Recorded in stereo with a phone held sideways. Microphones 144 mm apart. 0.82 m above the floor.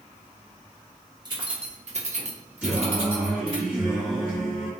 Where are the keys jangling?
30° right (ahead or behind), 0.7 m; by 3.6 s 35° right (ahead or behind), 1.1 m.